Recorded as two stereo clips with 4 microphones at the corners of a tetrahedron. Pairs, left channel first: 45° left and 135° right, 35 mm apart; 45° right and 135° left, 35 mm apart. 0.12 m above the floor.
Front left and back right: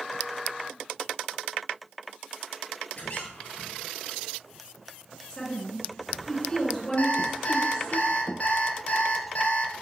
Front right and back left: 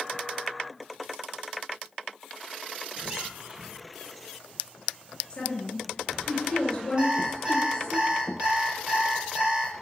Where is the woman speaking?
10° right, 2 m.